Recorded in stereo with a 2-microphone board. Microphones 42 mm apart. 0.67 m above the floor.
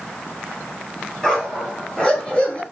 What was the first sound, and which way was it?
A dog barking, 10° left (ahead or behind).